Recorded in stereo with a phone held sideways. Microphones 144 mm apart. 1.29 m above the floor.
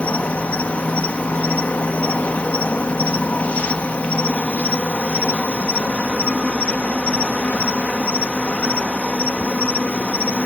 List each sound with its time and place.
0.0 s an insect: 10° left (ahead or behind)